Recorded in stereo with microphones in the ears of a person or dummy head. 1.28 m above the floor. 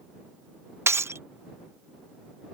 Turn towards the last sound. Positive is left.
turn(degrees=-15)  # may be behind; listen again after turning